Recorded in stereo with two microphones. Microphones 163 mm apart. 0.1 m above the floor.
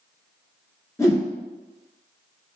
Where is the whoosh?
20° left (ahead or behind), 0.9 m.